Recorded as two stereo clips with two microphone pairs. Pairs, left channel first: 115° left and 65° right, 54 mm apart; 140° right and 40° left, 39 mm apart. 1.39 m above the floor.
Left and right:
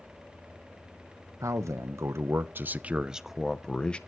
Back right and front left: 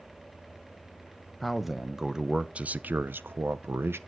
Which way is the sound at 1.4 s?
50° right.